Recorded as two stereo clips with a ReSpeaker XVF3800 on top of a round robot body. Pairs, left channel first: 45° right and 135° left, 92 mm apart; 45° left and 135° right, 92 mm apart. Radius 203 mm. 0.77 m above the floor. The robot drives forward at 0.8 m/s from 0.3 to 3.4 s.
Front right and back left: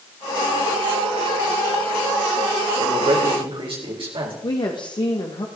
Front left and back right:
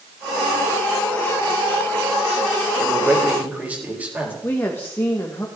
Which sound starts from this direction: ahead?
A woman speaking, at 4.4 s.